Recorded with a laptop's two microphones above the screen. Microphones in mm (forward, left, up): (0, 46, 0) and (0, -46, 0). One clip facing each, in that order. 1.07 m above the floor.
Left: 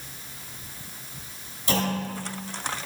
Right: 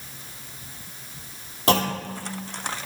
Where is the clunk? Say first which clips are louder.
Right 4 dB; 75° right (ahead or behind), 1.1 m.